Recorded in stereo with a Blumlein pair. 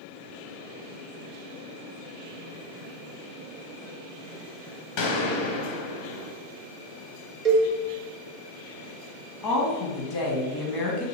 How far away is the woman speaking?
About 0.8 m.